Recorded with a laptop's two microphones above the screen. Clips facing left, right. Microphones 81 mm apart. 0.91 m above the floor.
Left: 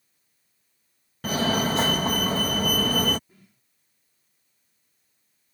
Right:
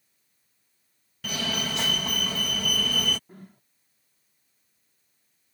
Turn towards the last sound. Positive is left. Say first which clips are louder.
# right 11 dB
turn(degrees=-55)  # may be behind; listen again after turning